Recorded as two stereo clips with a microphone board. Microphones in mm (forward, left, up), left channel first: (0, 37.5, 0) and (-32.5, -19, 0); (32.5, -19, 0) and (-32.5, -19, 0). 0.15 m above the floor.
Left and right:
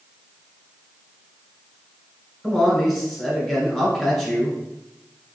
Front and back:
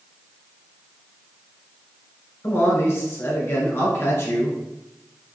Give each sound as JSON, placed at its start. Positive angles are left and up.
{"t": 2.4, "sound": "a man speaking", "azimuth_deg": -30, "distance_m": 1.6}